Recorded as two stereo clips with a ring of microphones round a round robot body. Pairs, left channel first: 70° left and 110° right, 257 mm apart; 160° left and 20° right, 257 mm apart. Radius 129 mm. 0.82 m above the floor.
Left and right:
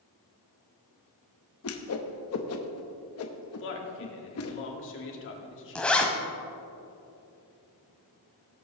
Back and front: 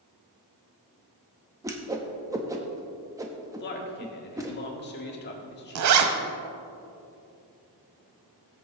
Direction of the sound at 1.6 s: 55° left.